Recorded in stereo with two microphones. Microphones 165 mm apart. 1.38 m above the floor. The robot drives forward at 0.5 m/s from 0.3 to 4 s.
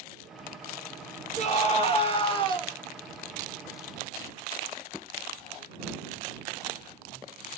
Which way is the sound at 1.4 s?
40° left (ahead or behind).